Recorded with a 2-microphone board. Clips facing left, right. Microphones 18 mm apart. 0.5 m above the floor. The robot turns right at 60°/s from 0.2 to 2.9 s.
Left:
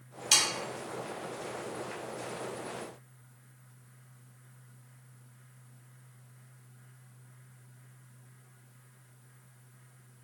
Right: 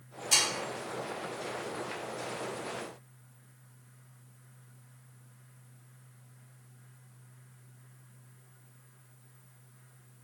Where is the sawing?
70° left (ahead or behind), 1.3 m; by 0.4 s 75° left (ahead or behind), 1.3 m.